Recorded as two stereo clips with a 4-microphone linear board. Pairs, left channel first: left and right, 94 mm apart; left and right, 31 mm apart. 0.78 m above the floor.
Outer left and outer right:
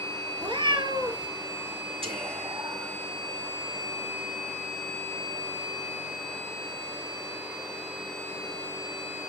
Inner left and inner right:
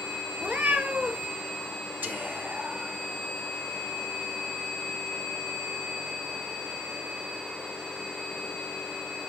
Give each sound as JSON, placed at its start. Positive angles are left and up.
{"t": 0.4, "sound": "a cat meowing", "side_deg": -55, "distance_m": 1.4}
{"t": 2.0, "sound": "whispering", "side_deg": -80, "distance_m": 2.0}